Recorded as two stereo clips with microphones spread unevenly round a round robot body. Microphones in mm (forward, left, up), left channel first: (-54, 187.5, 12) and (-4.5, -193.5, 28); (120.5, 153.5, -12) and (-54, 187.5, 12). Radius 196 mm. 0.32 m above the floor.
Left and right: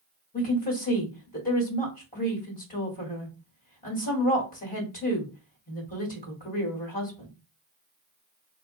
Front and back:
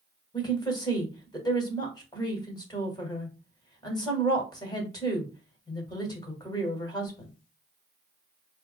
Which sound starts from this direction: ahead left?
A woman speaking, at 0.3 s.